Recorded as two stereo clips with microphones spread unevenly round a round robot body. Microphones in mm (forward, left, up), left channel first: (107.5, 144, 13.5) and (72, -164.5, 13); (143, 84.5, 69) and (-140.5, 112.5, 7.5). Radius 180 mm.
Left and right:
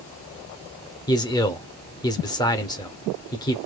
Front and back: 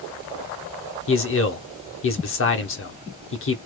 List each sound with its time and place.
1.1 s a man speaking: 15° left, 0.9 m